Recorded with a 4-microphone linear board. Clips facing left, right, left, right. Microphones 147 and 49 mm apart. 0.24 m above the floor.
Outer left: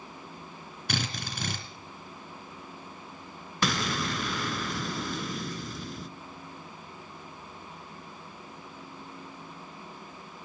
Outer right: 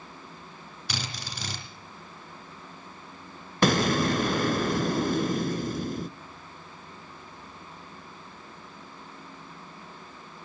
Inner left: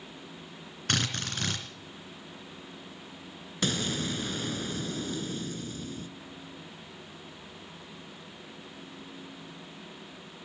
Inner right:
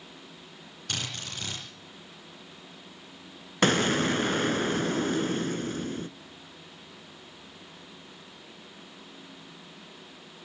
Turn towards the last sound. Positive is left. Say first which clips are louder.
# outer right 8 dB, inner right 8 dB
turn(degrees=-45)  # may be behind; listen again after turning